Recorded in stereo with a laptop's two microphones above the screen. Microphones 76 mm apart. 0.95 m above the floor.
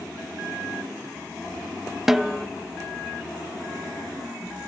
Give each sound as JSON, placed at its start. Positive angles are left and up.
{"t": 2.1, "sound": "a snare drum", "side_deg": -5, "distance_m": 0.8}